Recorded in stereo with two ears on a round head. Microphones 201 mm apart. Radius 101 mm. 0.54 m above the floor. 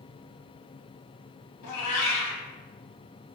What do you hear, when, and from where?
1.6 s a cat meowing: 85° left, 1.2 m